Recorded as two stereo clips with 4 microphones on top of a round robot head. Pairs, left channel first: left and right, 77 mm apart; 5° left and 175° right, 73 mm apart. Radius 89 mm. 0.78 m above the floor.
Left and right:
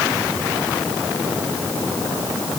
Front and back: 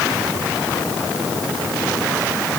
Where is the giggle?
I don't hear a giggle.